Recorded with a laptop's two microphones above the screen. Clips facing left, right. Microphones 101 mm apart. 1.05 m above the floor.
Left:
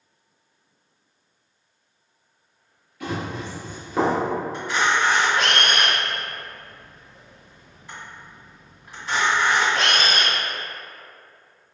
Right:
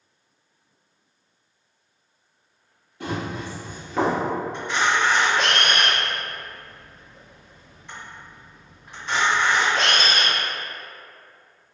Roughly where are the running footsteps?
Right.